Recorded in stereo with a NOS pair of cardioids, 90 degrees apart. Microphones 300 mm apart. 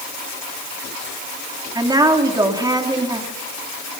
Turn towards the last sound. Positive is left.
turn(degrees=-15)